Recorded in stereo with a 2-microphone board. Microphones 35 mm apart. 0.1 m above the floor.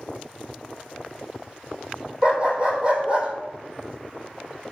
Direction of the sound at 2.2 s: 30° right (ahead or behind).